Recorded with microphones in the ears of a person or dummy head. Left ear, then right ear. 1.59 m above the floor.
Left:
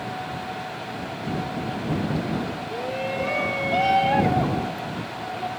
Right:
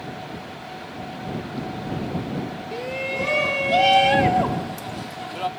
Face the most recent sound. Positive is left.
turn(degrees=-70)  # may be behind; listen again after turning